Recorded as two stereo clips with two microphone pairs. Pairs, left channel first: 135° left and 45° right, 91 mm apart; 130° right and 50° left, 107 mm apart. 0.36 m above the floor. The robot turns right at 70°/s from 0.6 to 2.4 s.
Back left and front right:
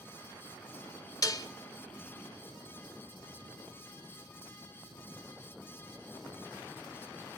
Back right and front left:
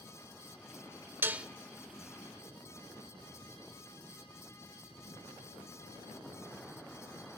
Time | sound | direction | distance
1.2 | dishes clattering | 115° left | 0.6 m